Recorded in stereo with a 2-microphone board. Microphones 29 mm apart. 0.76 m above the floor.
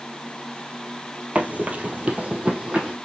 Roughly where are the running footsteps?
Right.